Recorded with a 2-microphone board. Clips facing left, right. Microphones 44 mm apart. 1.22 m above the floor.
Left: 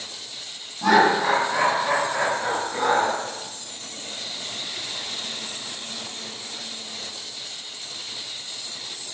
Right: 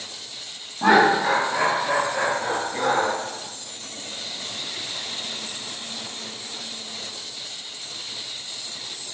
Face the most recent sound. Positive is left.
turn(degrees=35)  # may be behind; listen again after turning